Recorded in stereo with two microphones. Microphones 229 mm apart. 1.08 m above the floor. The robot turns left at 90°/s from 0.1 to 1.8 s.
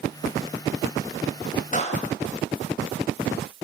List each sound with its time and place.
1.7 s a clap: 35° left (ahead or behind), 4 m; by 2.0 s 30° left (ahead or behind), 4 m